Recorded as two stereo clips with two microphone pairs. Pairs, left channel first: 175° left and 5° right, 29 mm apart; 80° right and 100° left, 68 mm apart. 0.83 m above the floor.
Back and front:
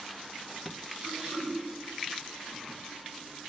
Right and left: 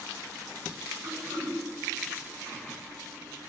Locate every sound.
1.0 s throat clearing: 10° right, 5.5 m